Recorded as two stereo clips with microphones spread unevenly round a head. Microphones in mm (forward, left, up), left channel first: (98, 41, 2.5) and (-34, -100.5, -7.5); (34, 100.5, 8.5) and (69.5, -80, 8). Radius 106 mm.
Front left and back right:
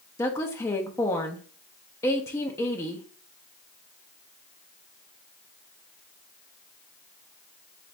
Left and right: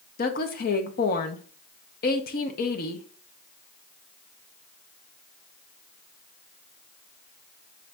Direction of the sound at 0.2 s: 115° left.